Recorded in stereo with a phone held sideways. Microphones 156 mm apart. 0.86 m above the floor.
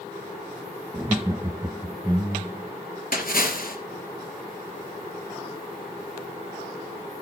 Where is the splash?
65° left (ahead or behind), 3 m.